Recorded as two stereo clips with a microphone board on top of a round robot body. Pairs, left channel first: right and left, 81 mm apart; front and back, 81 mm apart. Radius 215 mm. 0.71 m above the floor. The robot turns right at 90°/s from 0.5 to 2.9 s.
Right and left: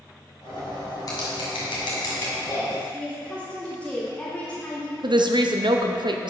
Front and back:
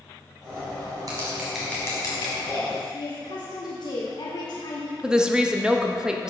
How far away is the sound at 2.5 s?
About 1.6 m.